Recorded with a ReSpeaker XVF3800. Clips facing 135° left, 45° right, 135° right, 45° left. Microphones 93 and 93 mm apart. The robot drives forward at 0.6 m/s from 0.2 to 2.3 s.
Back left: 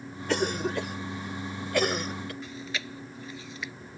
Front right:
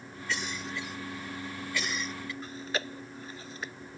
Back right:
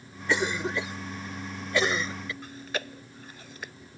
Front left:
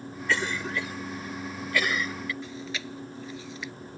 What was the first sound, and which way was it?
A cough, 155° left.